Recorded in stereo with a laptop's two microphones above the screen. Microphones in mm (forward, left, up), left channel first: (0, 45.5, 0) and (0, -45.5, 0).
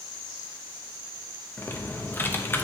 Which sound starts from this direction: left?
Typing on a keyboard, at 1.6 s.